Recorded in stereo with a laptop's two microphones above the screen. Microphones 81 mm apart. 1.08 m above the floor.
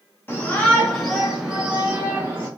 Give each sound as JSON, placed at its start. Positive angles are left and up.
{"t": 0.3, "sound": "a shout", "side_deg": 25, "distance_m": 1.4}